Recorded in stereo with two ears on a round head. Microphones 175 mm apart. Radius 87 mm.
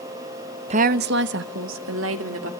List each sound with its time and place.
0.7 s a woman speaking: 30° right (ahead or behind), 0.6 m; by 2.5 s 75° right (ahead or behind), 2.5 m